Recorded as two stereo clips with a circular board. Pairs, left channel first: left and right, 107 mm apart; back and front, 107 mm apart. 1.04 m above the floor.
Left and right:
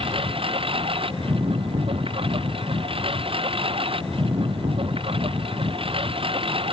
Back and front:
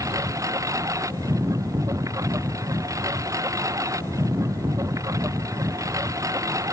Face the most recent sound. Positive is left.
turn(degrees=-60)